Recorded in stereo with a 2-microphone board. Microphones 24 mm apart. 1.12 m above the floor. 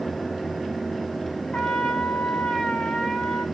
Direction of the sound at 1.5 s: 65° left (ahead or behind).